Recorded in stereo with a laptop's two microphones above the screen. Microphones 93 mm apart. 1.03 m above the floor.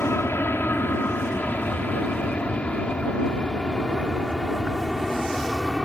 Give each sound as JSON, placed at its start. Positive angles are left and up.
{"t": 0.0, "sound": "an aircraft", "side_deg": 25}